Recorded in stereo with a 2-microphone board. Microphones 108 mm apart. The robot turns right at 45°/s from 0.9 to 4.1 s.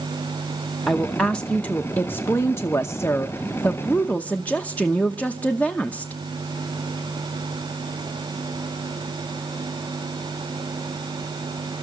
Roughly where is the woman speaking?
Centre.